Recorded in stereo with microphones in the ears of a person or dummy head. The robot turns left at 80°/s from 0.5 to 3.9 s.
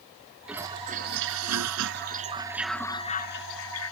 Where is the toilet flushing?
5° right; by 3.9 s 85° left.